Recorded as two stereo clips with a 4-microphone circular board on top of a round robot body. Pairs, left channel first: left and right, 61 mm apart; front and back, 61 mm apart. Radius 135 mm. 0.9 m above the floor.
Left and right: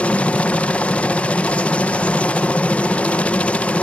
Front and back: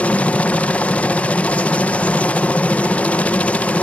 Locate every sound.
0.0 s a helicopter: 45° left